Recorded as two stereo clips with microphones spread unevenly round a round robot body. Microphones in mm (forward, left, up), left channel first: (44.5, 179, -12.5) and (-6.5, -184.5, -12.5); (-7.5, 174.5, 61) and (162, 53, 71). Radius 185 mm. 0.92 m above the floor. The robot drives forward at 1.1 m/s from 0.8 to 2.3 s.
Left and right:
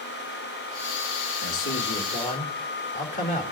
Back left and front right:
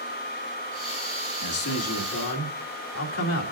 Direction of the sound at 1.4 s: 135° left.